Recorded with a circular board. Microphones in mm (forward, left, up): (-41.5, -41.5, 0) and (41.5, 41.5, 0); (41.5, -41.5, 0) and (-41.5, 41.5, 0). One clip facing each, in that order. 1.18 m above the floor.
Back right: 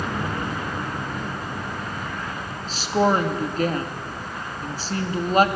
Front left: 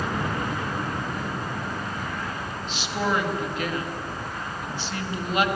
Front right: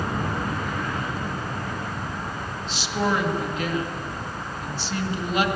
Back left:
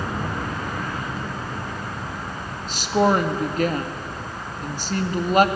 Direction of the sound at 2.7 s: 175° left.